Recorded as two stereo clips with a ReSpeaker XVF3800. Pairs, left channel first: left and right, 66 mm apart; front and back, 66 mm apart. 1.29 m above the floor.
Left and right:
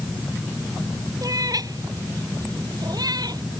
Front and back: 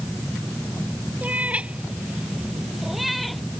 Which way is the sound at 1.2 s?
115° right.